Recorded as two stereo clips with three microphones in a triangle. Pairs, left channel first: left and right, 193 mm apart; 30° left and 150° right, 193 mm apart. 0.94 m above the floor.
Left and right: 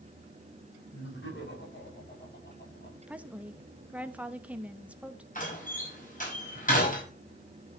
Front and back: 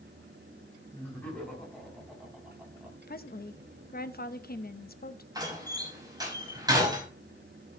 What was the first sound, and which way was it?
Laughter, 110° left.